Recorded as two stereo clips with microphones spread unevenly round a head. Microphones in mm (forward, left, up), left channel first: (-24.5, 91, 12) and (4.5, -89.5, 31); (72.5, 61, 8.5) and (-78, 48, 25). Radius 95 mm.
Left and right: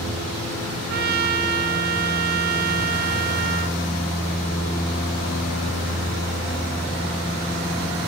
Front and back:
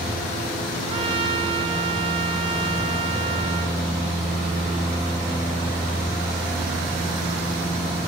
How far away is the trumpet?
About 1.6 m.